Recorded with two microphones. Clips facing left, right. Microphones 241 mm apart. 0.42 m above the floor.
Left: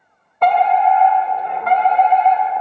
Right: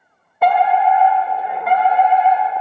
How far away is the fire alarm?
About 1.7 m.